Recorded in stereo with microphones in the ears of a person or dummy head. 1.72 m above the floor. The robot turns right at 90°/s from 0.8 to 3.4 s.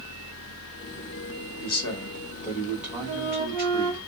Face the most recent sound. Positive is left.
turn(degrees=-25)  # may be behind; listen again after turning